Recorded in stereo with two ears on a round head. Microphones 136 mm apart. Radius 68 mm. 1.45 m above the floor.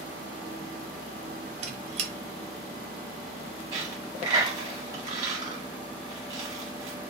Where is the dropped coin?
30° right (ahead or behind), 1.4 m.